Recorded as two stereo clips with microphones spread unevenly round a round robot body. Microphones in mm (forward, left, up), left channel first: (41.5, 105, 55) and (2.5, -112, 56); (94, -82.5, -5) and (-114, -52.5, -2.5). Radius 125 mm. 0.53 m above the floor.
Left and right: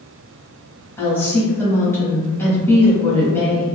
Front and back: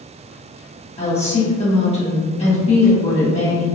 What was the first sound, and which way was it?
A woman speaking, 10° left.